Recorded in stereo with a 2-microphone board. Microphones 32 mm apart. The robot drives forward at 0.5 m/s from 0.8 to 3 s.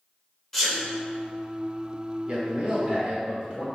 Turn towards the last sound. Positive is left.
turn(degrees=-35)  # may be behind; listen again after turning